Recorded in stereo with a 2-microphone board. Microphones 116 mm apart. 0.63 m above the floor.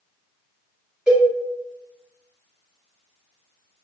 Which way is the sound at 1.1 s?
10° right (ahead or behind).